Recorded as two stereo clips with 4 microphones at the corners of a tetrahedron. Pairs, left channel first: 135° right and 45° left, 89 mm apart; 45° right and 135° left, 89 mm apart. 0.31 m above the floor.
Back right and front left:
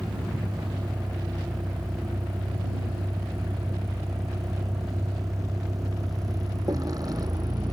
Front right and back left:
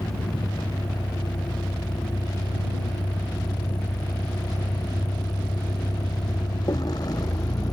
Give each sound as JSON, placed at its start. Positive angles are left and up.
{"t": 0.0, "sound": "a vehicle", "azimuth_deg": -10}